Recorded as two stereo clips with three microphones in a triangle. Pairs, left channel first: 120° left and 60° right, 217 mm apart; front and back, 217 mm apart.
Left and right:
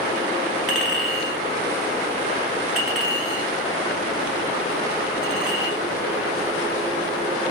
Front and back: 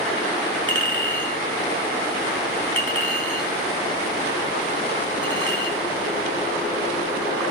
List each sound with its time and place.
0.7 s a clink: 150° right, 1.0 m